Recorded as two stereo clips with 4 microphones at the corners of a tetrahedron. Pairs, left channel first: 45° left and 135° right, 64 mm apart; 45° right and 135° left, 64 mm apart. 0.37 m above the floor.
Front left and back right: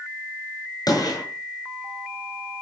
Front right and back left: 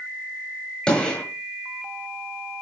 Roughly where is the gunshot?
Ahead left.